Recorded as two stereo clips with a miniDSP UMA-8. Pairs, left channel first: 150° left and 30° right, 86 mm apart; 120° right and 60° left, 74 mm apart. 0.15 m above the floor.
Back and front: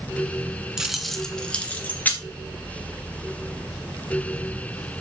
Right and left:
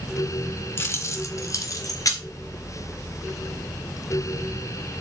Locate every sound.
0.8 s keys jangling: 110° right, 1.1 m; by 2.2 s 145° right, 1.8 m